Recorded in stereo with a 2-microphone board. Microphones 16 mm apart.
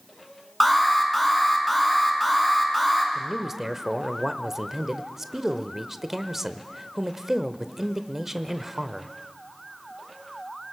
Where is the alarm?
5° left (ahead or behind), 4 m.